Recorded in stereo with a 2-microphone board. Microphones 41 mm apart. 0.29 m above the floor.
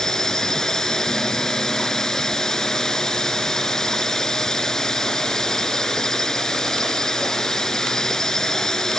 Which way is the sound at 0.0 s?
15° left (ahead or behind).